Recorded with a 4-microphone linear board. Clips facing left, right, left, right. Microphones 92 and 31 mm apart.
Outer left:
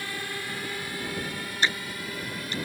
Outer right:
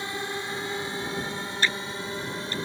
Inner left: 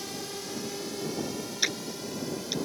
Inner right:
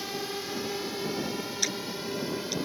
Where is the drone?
25° right (ahead or behind).